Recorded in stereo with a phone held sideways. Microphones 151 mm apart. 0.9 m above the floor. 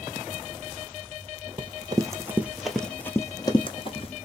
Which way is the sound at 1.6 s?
35° right (ahead or behind).